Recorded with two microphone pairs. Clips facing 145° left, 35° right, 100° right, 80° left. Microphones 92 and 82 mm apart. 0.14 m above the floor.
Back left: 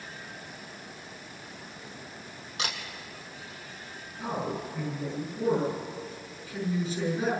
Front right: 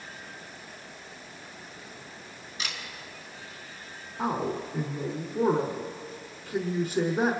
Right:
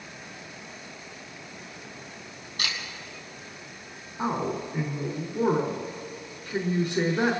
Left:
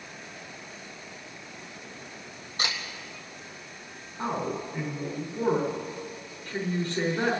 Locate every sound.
2.6 s a camera shutter: 135° left, 3 m
4.2 s a man speaking: 35° right, 5 m